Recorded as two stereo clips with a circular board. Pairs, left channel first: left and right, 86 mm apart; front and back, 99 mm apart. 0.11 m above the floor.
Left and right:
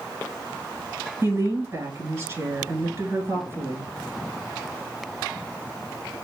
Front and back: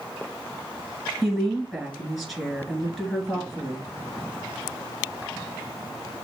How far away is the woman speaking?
About 1.2 m.